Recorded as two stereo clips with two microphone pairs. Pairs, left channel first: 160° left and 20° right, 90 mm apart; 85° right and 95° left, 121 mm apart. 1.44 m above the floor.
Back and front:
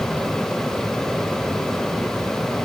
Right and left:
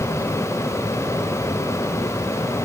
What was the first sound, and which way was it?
Only background noise.